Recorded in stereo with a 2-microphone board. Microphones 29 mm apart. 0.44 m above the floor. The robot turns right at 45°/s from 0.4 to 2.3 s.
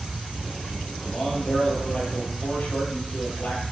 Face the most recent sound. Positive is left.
turn(degrees=90)